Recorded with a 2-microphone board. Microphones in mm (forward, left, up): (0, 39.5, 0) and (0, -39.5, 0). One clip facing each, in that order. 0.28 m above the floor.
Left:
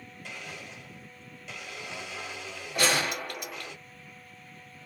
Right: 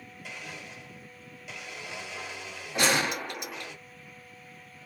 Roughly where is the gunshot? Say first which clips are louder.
Right 1 dB; right.